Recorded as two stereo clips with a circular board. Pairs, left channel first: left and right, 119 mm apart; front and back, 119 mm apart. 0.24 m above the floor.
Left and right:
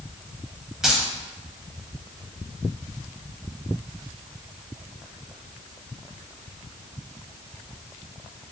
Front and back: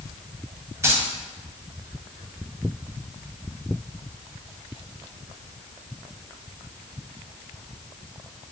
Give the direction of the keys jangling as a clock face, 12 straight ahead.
6 o'clock.